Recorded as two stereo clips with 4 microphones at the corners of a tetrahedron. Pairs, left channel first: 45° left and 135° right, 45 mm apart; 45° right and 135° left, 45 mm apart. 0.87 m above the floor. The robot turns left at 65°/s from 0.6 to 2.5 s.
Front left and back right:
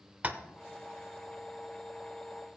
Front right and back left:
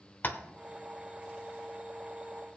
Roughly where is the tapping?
Right.